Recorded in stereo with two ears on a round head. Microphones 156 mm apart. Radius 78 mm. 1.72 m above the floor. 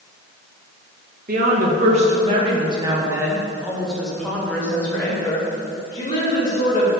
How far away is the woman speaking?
About 2 m.